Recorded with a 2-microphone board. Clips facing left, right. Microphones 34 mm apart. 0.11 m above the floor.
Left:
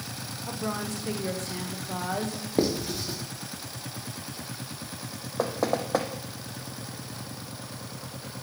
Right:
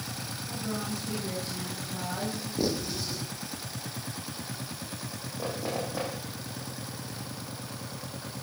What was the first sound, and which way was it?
A woman speaking, 70° left (ahead or behind).